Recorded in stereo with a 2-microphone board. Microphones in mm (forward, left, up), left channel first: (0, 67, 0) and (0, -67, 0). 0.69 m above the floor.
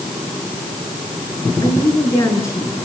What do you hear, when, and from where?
1.6 s a woman speaking: 25° left (ahead or behind), 10 m; by 2.8 s 20° left (ahead or behind), 10.5 m